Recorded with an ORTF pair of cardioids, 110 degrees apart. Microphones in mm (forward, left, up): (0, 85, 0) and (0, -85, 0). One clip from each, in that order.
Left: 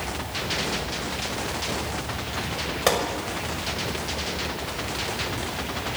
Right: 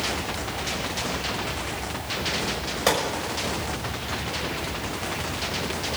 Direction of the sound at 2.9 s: 10° left.